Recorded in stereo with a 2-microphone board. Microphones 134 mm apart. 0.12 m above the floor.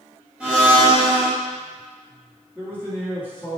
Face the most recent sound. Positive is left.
turn(degrees=-15)  # may be behind; listen again after turning